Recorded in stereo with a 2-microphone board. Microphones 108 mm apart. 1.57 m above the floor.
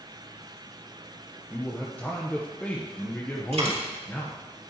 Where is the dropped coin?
70° right (ahead or behind), 4 m.